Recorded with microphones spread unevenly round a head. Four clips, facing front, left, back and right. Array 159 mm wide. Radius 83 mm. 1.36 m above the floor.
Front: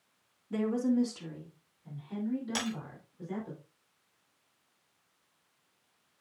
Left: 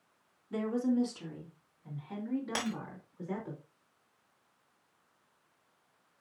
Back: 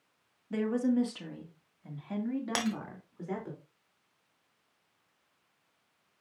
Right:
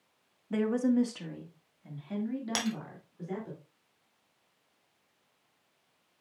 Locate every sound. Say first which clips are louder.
0.5 s a woman speaking: right 3 dB, even; 105° right, 2.5 m; by 3.5 s 170° right, 4 m
2.5 s breaking glass: right 2 dB, back 3 dB; 150° right, 2.5 m